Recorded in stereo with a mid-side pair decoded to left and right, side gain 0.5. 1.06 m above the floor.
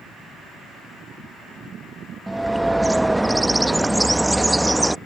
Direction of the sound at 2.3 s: 10° right.